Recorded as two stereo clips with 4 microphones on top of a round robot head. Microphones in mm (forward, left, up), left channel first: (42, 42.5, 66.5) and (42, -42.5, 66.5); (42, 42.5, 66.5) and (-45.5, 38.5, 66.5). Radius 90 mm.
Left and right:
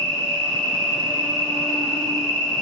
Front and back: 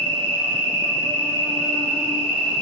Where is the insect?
175° left, 1.4 m.